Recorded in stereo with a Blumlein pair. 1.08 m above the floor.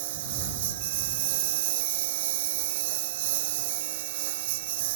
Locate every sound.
0.0 s a lawn mower: 55° right